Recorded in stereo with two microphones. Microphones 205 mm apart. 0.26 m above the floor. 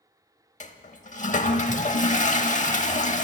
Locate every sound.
0.6 s a toilet flushing: 35° left (ahead or behind), 0.6 m